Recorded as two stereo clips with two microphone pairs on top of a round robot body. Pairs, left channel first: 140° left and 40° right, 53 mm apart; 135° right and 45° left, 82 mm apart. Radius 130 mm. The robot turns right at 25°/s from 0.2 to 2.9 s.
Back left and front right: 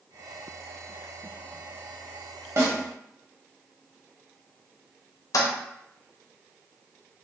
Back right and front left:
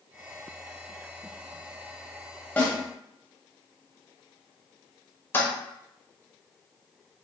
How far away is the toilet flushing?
About 0.6 m.